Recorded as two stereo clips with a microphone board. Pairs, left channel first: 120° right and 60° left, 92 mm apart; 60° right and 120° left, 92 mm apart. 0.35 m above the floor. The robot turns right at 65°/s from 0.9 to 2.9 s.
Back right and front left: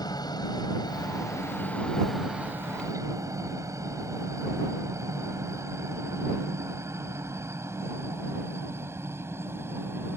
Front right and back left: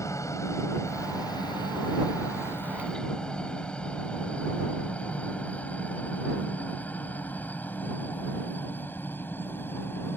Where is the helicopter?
105° right; by 10.2 s straight ahead.